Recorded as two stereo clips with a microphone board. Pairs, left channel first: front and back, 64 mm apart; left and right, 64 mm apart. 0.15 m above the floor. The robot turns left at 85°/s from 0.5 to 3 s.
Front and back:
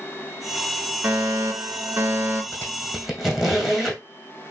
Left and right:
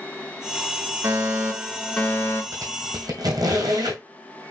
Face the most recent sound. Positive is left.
turn(degrees=-90)